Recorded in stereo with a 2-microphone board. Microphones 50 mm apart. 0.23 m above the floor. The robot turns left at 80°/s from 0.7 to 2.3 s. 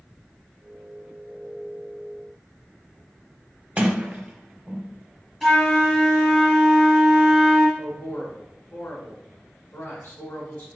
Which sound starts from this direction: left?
A man speaking, at 7.8 s.